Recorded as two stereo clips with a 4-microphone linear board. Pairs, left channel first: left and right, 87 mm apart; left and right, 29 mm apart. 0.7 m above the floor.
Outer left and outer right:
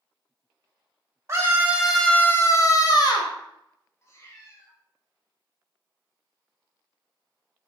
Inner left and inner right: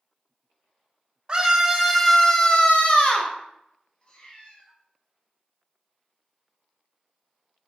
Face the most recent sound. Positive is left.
turn(degrees=35)  # may be behind; listen again after turning